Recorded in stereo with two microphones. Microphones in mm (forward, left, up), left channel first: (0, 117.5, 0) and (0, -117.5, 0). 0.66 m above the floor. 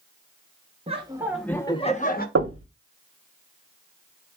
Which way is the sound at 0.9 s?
30° right (ahead or behind).